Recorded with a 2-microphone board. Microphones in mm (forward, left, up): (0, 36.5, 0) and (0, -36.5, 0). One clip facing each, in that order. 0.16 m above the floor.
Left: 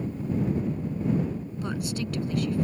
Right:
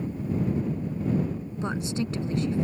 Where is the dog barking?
I don't hear a dog barking.